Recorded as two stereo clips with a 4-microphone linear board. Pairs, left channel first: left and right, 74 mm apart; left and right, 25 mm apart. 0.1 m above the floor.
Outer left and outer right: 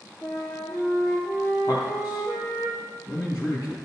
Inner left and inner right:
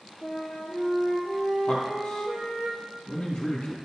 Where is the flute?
5° left (ahead or behind), 3.5 m.